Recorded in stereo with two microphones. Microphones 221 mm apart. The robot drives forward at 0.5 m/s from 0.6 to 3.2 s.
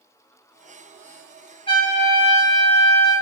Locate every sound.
1.7 s a trumpet: 25° left (ahead or behind), 1.3 m; by 3.1 s 15° left (ahead or behind), 1.8 m